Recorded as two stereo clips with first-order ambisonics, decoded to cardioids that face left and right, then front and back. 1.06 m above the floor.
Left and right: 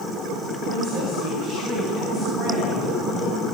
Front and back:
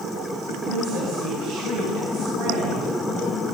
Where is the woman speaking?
145° right, 7.5 m.